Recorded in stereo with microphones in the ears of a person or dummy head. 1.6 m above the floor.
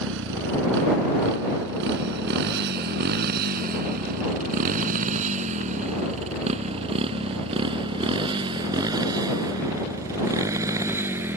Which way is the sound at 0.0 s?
75° right (ahead or behind).